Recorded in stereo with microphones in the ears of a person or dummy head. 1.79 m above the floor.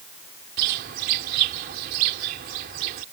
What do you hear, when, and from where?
0.6 s a bird: 45° right (ahead or behind)